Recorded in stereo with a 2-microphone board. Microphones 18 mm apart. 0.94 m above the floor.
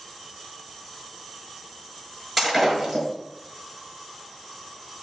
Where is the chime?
I don't hear a chime.